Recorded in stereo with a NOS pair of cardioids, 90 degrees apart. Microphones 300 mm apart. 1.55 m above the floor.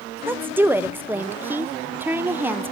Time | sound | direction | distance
0.3 | a woman speaking | 5° right | 0.8 m